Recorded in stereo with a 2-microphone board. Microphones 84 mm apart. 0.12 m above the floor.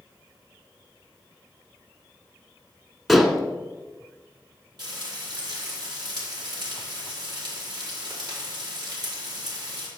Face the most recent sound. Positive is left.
turn(degrees=-60)  # may be behind; listen again after turning